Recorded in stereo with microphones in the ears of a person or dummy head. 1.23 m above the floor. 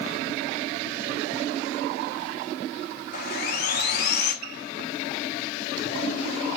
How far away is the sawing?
About 1.1 m.